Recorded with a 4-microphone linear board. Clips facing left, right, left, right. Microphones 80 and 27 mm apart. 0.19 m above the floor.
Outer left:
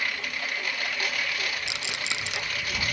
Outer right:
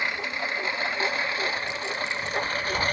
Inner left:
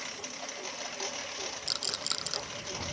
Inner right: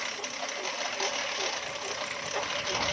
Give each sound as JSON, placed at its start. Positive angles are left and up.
{"t": 0.0, "sound": "a lawn mower", "side_deg": -25}
{"t": 1.7, "sound": "a rattle", "side_deg": 75}